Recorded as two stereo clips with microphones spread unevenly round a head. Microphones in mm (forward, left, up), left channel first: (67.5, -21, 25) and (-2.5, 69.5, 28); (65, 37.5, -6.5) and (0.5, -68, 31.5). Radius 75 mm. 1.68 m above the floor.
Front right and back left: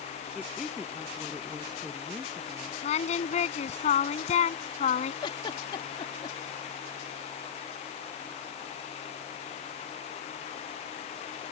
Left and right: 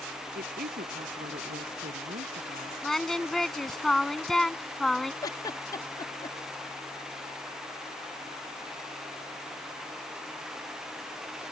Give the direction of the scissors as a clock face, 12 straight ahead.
No scissors in this recording.